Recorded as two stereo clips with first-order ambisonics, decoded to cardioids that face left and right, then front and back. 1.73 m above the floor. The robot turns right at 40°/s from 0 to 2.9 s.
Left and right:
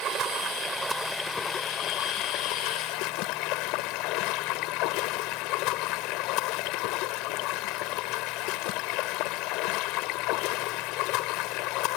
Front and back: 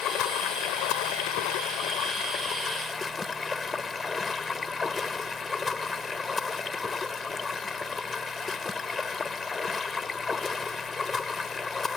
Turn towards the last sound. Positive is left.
turn(degrees=70)